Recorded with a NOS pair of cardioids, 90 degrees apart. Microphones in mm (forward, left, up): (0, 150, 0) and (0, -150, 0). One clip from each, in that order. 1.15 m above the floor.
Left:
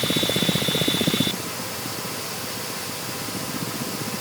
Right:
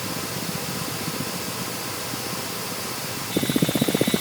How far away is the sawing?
I don't hear sawing.